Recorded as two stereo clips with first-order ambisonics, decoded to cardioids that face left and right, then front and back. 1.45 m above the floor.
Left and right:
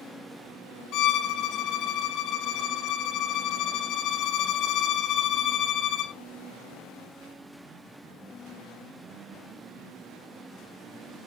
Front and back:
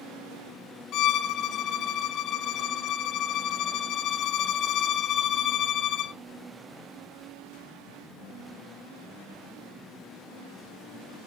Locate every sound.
0.9 s a violin: 45° left, 0.7 m